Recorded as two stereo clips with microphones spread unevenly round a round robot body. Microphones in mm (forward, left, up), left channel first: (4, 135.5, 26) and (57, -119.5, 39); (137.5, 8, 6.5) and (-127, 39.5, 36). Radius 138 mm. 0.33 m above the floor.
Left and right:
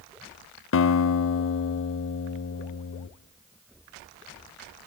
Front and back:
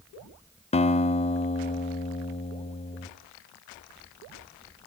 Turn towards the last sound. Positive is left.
turn(degrees=60)